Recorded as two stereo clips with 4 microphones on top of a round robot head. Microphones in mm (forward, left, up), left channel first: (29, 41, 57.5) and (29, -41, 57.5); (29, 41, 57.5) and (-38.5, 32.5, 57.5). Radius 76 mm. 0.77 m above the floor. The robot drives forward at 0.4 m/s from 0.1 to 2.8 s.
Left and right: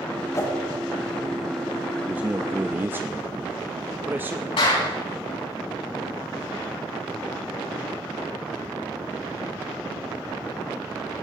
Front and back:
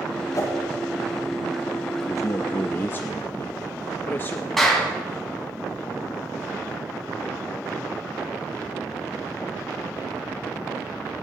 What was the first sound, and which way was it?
A whoosh, 40° left.